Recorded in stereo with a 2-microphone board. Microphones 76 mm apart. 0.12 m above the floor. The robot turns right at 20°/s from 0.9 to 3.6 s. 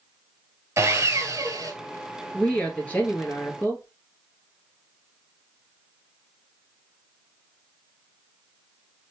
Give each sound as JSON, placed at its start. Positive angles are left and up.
{"t": 0.8, "sound": "sawing", "side_deg": -40, "distance_m": 0.9}
{"t": 2.3, "sound": "a woman speaking", "side_deg": 15, "distance_m": 1.9}